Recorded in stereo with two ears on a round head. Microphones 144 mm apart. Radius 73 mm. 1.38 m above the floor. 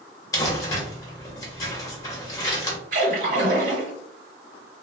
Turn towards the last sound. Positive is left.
turn(degrees=-55)  # may be behind; listen again after turning